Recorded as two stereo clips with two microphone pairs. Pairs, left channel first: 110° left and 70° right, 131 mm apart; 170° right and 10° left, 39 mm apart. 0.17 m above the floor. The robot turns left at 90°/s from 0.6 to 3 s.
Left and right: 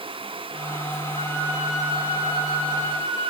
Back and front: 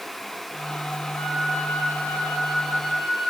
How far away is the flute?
About 6.5 m.